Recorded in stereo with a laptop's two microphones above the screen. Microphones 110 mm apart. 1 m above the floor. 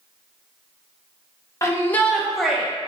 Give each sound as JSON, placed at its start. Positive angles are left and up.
{"t": 1.6, "sound": "a shout", "side_deg": 30, "distance_m": 0.9}